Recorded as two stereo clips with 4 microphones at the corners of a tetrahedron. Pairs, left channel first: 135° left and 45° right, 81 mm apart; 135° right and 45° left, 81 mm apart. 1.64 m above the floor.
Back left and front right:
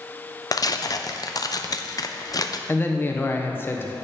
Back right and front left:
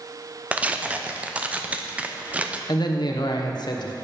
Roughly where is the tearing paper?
Behind left.